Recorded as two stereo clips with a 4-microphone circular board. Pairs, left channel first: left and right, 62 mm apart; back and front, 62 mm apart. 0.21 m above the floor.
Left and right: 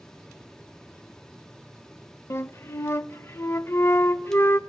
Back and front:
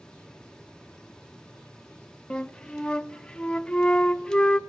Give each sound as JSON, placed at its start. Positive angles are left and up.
{"t": 2.3, "sound": "a flute", "azimuth_deg": 110, "distance_m": 0.5}